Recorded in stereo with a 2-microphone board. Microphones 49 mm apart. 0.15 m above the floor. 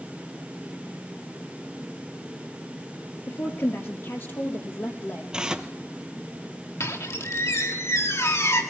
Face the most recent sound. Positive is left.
turn(degrees=75)  # may be behind; listen again after turning